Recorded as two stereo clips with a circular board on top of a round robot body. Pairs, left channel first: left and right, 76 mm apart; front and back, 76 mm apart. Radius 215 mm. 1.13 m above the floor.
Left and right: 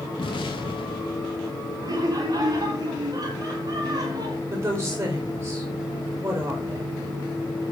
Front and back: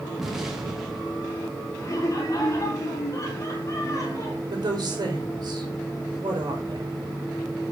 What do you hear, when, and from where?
0.2 s an explosion: 95° left, 1.0 m
1.8 s laughter: 50° right, 2.5 m
4.5 s a woman speaking: 145° right, 4 m